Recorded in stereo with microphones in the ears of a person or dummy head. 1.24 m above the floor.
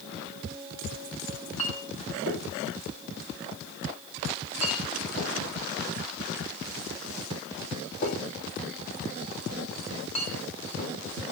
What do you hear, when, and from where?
1.3 s a clink: 30° left (ahead or behind), 1.7 m